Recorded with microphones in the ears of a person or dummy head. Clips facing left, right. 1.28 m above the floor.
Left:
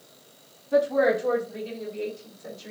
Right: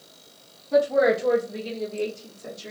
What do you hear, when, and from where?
0.7 s a woman speaking: 25° right (ahead or behind), 0.9 m; by 2.7 s 75° right (ahead or behind), 1.4 m